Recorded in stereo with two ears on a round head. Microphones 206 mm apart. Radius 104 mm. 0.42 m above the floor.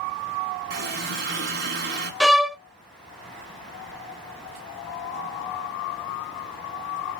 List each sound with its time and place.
0.7 s a running tap: 50° right (ahead or behind), 3 m
2.2 s a violin: centre (ahead or behind), 0.6 m